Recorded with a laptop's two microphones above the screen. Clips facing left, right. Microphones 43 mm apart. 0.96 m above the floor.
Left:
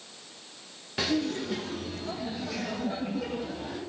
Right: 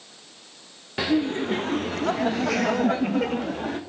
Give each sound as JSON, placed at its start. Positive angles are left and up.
{"t": 1.0, "sound": "laughter", "side_deg": -15, "distance_m": 0.7}